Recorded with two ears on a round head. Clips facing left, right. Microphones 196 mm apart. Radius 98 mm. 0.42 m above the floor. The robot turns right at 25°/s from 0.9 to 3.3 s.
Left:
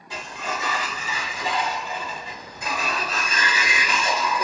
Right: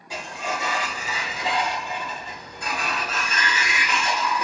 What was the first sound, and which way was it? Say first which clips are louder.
A sliding door: right 1 dB; 15° right.